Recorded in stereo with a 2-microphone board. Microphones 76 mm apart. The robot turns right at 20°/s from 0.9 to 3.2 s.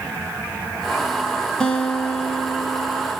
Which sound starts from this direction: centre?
A guitar, at 1.6 s.